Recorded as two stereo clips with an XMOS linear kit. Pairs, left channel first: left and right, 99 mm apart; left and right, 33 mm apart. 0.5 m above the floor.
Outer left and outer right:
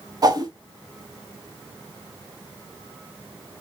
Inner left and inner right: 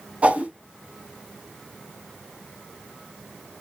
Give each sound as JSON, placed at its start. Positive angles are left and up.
{"t": 0.2, "sound": "a whoosh", "side_deg": -40, "distance_m": 0.8}